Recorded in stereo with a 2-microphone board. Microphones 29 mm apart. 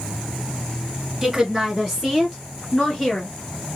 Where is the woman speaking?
5° right (ahead or behind), 1.5 m; by 3.3 s 30° left (ahead or behind), 2.5 m.